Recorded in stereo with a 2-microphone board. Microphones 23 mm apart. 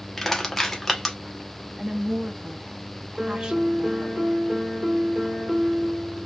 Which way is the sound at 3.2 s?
30° right (ahead or behind).